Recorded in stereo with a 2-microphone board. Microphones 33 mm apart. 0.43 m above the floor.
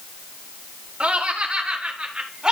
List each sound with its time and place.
1.0 s laughter: 40° right (ahead or behind), 4.5 m; by 2.5 s 25° right (ahead or behind), 3.5 m